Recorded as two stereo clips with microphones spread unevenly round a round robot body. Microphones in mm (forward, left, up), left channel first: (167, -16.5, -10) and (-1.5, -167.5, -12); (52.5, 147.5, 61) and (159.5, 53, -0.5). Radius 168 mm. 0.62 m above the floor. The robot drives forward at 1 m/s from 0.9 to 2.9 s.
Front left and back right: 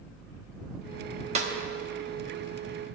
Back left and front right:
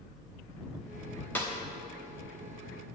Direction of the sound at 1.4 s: 115° right.